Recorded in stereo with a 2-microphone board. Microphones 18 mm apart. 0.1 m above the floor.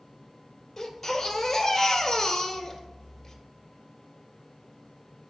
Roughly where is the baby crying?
Centre.